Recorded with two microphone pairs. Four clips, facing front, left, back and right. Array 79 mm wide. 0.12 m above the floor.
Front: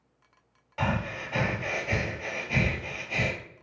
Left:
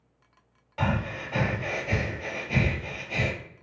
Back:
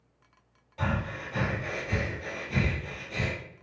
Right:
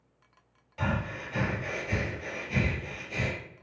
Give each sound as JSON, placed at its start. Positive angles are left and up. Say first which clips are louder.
{"t": 0.8, "sound": "breathing", "louder": "left 3 dB, front 2 dB", "azimuth_deg": 60, "distance_m": 0.6}